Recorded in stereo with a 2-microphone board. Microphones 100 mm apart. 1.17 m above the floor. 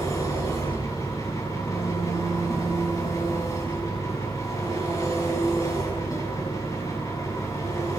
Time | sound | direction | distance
0.0 | an engine running | 35° left (ahead or behind) | 6 m